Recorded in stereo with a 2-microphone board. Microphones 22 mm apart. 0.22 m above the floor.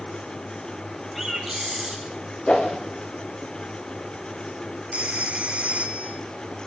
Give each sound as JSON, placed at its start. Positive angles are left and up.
{"t": 1.1, "sound": "a bird", "side_deg": -5, "distance_m": 6.0}
{"t": 2.5, "sound": "a whoosh", "side_deg": 50, "distance_m": 6.0}
{"t": 4.9, "sound": "a phone ringing", "side_deg": -55, "distance_m": 2.0}